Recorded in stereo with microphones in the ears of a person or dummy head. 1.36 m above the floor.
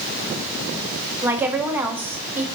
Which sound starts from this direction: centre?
A woman speaking, at 1.2 s.